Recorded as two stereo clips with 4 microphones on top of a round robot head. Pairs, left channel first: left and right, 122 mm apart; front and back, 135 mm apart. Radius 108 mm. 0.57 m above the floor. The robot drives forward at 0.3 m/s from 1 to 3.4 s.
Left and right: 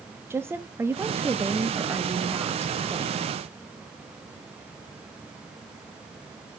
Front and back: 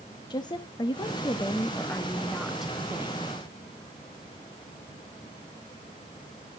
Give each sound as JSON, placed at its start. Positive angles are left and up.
{"t": 0.3, "sound": "a woman speaking", "azimuth_deg": -30, "distance_m": 0.9}